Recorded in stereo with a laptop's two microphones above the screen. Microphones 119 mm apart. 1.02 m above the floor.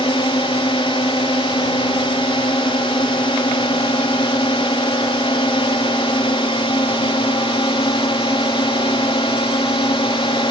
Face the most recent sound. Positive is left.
turn(degrees=50)  # may be behind; listen again after turning